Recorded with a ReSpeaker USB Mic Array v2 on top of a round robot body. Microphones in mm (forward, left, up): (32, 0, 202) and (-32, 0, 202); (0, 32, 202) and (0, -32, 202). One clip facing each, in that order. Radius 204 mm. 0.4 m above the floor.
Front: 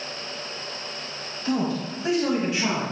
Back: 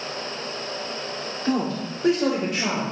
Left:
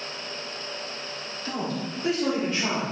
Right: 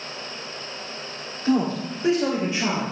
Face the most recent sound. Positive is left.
turn(degrees=-165)